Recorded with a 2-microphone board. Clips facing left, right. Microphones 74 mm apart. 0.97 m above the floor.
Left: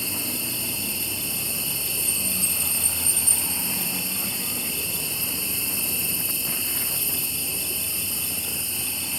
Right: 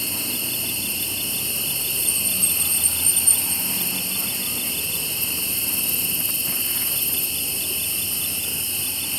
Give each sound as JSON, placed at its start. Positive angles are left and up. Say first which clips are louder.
{"t": 0.0, "sound": "an insect", "louder": "right 1 dB", "side_deg": -75, "distance_m": 2.5}